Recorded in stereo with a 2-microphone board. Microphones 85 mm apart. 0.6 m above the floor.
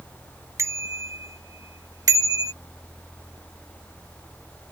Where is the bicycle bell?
40° right (ahead or behind); by 2.5 s 50° right (ahead or behind).